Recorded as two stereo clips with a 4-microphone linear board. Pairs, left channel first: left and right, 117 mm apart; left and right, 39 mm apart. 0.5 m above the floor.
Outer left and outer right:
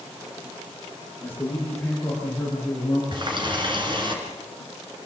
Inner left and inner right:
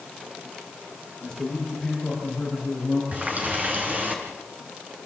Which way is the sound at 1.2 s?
20° left (ahead or behind).